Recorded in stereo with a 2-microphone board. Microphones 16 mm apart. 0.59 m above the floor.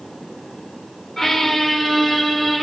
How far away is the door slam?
I don't hear a door slam.